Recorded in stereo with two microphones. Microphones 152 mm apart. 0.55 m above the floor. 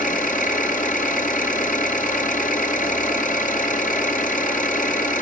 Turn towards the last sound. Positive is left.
turn(degrees=60)  # may be behind; listen again after turning